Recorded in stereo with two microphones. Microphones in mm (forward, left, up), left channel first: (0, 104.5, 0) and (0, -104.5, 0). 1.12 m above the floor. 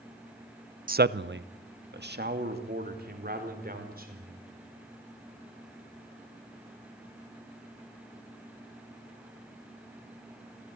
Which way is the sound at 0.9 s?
40° right (ahead or behind).